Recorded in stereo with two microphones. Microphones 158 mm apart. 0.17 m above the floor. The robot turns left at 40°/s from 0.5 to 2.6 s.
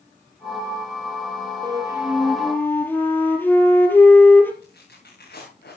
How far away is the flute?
About 2.5 m.